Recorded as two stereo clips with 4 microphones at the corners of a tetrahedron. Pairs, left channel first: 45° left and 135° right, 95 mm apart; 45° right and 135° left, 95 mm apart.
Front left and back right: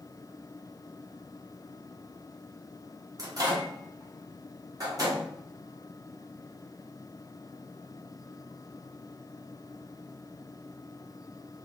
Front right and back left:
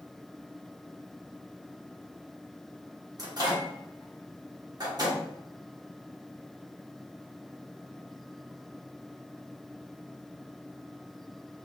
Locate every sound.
3.2 s a microwave: straight behind, 1.1 m